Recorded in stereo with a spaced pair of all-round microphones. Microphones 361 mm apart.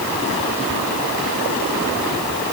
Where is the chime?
I don't hear a chime.